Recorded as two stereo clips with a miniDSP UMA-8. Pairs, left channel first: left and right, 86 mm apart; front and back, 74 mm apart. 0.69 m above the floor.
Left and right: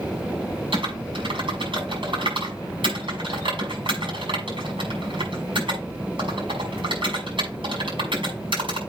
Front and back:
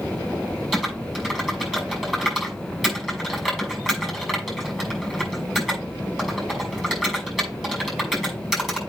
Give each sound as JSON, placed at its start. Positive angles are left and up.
{"t": 0.7, "sound": "typing on a keyboard", "azimuth_deg": -95, "distance_m": 6.0}